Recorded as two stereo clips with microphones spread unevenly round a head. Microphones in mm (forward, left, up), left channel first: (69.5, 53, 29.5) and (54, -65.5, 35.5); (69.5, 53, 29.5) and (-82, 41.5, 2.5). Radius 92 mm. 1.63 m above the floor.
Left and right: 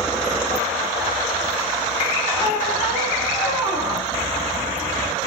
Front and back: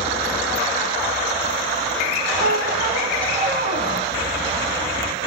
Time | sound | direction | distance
2.4 | a squeak | 145° left | 4 m